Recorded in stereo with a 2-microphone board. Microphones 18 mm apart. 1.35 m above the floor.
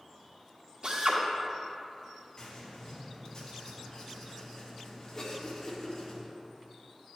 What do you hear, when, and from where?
0.8 s a drill: 60° right (ahead or behind), 1.4 m
2.4 s writing: 40° left (ahead or behind), 1.9 m
5.2 s a cough: 30° left (ahead or behind), 2 m